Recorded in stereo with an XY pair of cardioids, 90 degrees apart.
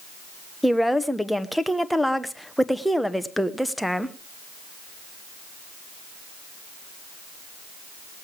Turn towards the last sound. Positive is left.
turn(degrees=0)